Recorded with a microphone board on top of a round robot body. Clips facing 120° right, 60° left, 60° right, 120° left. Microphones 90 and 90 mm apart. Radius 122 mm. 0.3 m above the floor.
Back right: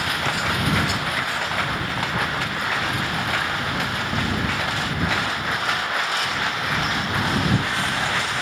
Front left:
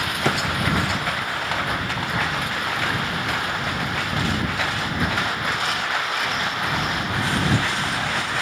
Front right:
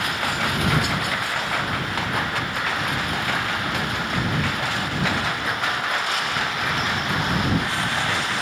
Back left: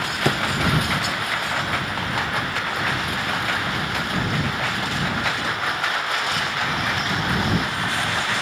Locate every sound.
0.2 s a drawer: 110° left